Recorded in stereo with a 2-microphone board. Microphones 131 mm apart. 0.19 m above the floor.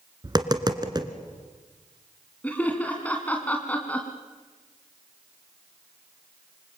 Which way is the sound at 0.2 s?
30° right (ahead or behind).